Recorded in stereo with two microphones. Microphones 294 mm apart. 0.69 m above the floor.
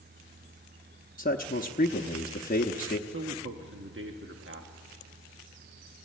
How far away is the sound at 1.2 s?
About 0.8 m.